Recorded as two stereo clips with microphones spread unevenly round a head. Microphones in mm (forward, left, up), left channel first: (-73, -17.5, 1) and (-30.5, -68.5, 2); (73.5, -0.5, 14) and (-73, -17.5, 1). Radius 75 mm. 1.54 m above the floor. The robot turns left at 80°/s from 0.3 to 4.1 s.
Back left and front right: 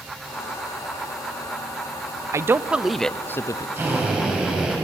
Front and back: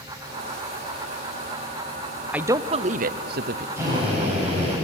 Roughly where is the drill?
Right.